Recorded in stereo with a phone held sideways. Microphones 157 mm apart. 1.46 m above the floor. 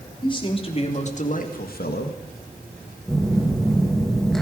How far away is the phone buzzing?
About 2.0 m.